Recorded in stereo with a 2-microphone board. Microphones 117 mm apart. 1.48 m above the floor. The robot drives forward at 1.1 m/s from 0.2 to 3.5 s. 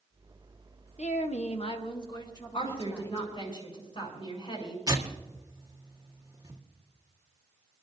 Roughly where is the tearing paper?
Right.